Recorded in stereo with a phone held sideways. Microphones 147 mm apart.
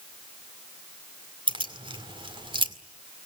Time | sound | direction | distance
1.5 | keys jangling | 35° right (ahead or behind) | 1.9 m